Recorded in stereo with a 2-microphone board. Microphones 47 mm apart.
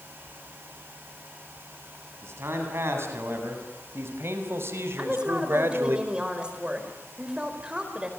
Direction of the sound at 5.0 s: 20° right (ahead or behind).